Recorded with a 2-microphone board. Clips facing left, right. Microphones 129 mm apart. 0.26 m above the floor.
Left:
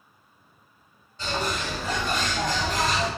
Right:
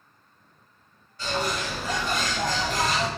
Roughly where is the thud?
No thud in this recording.